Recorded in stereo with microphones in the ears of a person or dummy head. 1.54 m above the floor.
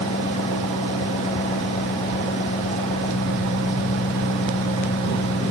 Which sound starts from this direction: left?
An engine running, at 0.0 s.